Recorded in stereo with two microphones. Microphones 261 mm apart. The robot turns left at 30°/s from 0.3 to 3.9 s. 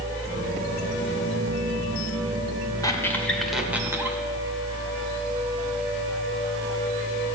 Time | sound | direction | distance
2.8 | a squeak | 15° left (ahead or behind) | 1.5 m